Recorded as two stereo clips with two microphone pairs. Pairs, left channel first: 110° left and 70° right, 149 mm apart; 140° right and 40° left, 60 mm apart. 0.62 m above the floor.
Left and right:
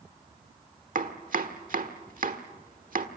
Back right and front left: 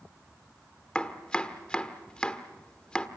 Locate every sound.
0.9 s chopping: 65° right, 1.3 m